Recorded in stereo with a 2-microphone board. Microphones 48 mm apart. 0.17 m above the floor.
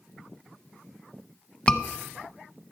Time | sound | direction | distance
1.7 | a scream | 20° left (ahead or behind) | 1.1 m